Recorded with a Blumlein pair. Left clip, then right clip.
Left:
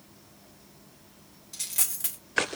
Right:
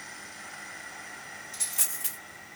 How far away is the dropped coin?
About 2.5 m.